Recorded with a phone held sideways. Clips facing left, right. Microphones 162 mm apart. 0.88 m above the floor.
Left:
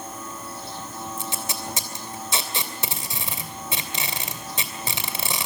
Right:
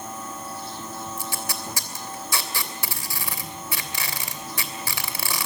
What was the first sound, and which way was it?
Tape being pulled, 25° left (ahead or behind).